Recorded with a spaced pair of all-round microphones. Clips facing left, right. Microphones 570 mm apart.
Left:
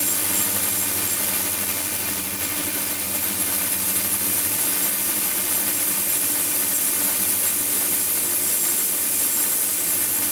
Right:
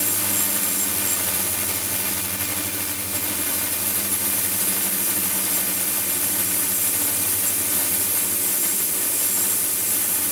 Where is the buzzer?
I don't hear a buzzer.